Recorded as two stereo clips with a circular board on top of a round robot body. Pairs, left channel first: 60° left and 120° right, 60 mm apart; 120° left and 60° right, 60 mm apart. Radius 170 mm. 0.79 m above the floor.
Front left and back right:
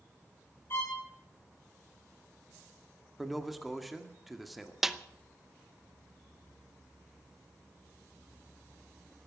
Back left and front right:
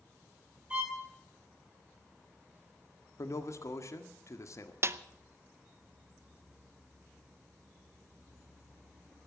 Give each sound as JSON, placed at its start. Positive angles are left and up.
{"t": 0.7, "sound": "a violin", "azimuth_deg": 10, "distance_m": 7.5}
{"t": 3.2, "sound": "a man speaking", "azimuth_deg": 155, "distance_m": 1.8}
{"t": 4.8, "sound": "a snare drum", "azimuth_deg": -35, "distance_m": 1.0}